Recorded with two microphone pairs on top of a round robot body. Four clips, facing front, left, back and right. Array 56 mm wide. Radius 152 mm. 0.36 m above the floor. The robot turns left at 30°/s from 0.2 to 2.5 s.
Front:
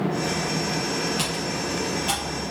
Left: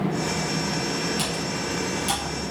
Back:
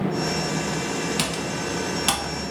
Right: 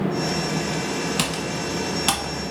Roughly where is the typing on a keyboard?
Right.